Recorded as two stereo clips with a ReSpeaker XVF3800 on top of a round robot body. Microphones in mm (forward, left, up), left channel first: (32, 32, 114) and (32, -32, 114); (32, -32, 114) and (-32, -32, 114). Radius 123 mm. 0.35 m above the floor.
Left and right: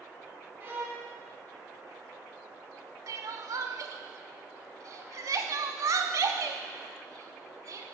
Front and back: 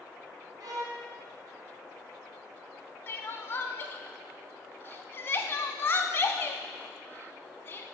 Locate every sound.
0.6 s a violin: 155° right, 1.5 m
3.1 s crying: 60° right, 0.5 m